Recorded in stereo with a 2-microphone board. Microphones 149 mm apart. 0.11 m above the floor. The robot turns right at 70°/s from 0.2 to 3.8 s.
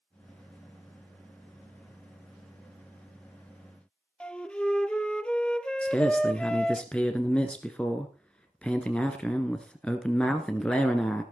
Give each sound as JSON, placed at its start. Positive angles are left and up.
{"t": 4.2, "sound": "a flute", "side_deg": 5, "distance_m": 0.6}
{"t": 5.8, "sound": "a man speaking", "side_deg": 5, "distance_m": 1.2}